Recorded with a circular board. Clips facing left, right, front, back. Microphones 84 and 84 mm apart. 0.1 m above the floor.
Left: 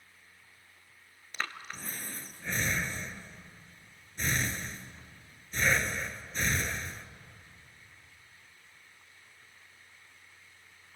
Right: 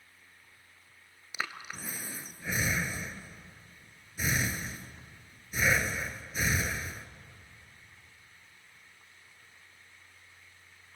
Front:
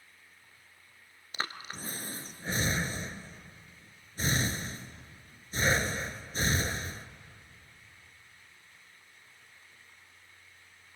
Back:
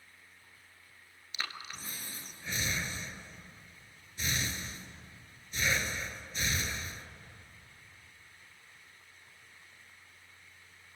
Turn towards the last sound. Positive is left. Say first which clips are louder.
# even, front 4 dB
turn(degrees=-10)